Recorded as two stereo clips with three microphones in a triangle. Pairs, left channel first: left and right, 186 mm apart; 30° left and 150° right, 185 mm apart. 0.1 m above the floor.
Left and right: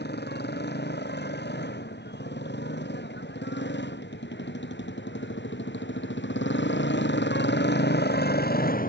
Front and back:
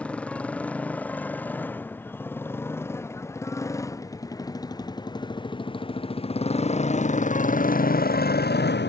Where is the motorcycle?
115° left; by 8.9 s 50° left.